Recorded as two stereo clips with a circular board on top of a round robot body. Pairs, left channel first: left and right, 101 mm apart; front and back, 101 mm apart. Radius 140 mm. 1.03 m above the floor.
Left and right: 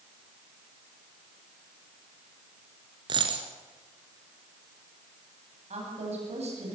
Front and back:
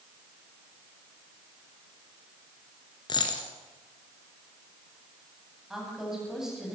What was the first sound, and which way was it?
A dropped coin, 45° right.